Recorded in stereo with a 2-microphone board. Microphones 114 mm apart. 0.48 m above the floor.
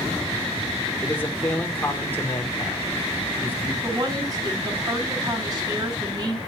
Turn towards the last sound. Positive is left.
turn(degrees=-30)  # may be behind; listen again after turning